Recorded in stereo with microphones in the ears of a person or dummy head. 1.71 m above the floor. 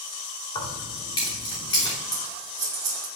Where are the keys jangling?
25° left (ahead or behind), 3 m.